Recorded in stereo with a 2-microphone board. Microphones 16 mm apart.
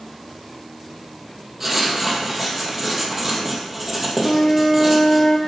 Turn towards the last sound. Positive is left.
turn(degrees=60)  # may be behind; listen again after turning